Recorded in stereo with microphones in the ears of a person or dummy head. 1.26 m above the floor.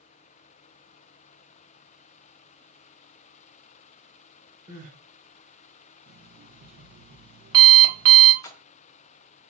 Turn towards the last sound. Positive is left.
turn(degrees=15)  # may be behind; listen again after turning